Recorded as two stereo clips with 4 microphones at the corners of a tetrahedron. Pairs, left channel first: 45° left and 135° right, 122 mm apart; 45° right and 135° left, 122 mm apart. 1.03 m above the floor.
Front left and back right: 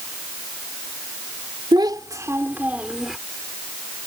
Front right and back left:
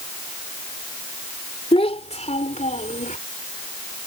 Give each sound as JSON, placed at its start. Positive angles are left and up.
{"t": 1.7, "sound": "a child speaking", "azimuth_deg": -85}